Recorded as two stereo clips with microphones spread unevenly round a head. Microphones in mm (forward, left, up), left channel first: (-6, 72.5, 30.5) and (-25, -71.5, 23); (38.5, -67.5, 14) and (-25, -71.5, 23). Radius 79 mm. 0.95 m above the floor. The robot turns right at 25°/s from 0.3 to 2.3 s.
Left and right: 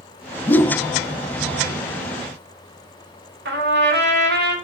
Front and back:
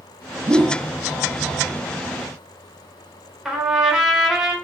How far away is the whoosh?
About 0.7 m.